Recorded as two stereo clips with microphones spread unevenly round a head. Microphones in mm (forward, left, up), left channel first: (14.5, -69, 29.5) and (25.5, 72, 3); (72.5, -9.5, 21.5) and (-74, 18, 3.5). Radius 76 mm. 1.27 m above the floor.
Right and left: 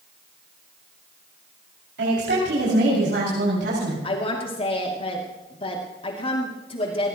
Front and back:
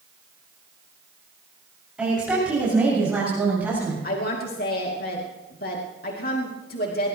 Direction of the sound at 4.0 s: 45° right.